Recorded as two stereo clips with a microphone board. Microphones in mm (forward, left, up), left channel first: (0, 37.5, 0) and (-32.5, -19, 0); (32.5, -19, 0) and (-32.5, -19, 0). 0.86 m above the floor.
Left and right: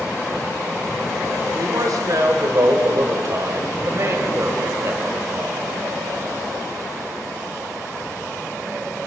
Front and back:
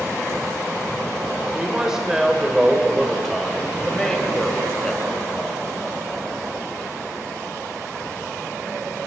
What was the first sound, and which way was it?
A man speaking, 105° right.